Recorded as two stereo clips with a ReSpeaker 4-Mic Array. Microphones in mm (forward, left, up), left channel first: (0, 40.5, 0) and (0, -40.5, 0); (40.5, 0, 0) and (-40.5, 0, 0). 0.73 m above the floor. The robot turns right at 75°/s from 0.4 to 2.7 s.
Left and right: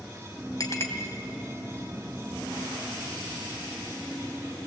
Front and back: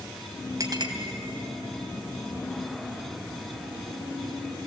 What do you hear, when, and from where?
0.6 s a clink: 135° left, 2.5 m; by 0.9 s 160° left, 2.5 m